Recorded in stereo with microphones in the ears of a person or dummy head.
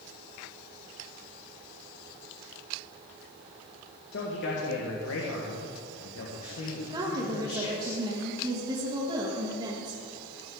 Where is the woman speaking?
30° right (ahead or behind), 1.4 m.